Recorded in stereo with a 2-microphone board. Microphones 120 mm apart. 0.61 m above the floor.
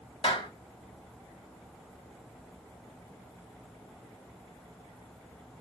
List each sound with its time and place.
0.2 s a clap: 45° left (ahead or behind), 3.5 m